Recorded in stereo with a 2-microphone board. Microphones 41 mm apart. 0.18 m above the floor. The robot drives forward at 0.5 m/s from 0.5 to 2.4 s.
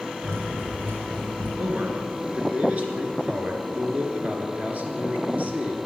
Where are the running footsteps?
75° right (ahead or behind), 3.5 m.